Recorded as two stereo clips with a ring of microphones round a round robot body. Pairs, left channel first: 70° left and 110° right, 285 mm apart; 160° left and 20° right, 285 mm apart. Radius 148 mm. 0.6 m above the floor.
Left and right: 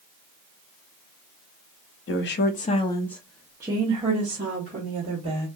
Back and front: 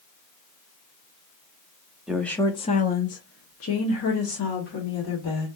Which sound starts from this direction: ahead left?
A woman speaking, at 2.1 s.